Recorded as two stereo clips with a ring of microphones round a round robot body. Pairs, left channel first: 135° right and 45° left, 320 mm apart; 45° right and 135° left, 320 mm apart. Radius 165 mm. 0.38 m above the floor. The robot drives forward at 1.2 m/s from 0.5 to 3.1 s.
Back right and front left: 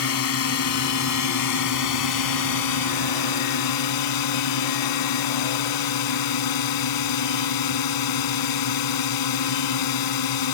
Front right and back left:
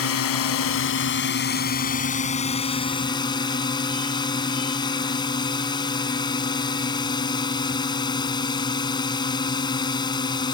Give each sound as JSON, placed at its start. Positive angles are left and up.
{"t": 0.0, "sound": "a drone", "azimuth_deg": -90}